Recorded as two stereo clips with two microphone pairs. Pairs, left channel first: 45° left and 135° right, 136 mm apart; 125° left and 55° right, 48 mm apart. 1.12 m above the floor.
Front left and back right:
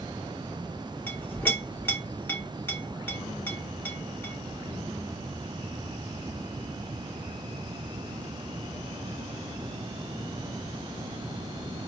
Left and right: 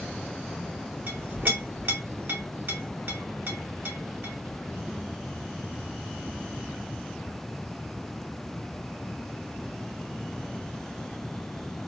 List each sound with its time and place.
1.1 s a clink: 20° right, 0.8 m